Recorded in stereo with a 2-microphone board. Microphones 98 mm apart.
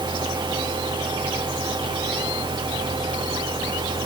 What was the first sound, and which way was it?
Only background noise.